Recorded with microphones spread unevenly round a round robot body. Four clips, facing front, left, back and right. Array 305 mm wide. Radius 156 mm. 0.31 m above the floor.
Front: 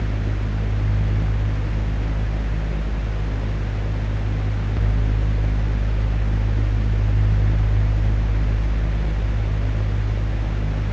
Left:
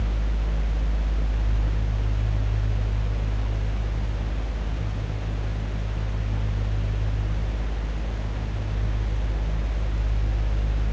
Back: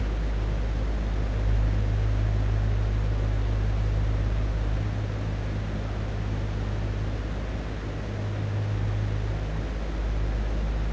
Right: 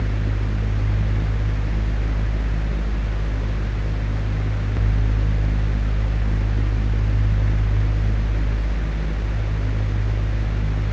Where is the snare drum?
No snare drum in this recording.